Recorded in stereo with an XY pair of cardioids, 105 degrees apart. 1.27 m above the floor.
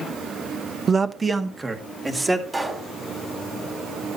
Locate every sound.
0.9 s a man speaking: 35° right, 1.0 m; by 2.4 s 15° right, 3.5 m
2.5 s a pop: 15° right, 3.5 m